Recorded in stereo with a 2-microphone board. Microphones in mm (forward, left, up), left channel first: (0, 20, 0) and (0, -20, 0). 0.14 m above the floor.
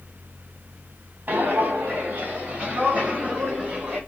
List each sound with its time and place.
1.3 s footsteps: 45° right (ahead or behind), 1.5 m; by 4.0 s 15° right (ahead or behind), 2.5 m